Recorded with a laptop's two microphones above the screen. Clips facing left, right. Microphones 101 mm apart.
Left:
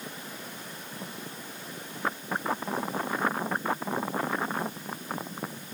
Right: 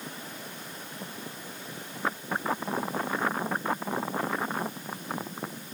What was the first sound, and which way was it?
Only background noise.